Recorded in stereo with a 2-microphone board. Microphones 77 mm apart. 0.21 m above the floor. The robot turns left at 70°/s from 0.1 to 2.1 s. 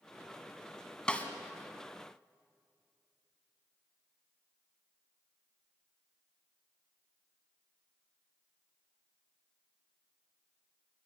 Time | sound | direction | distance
1.1 | a snare drum | 10° left (ahead or behind) | 2 m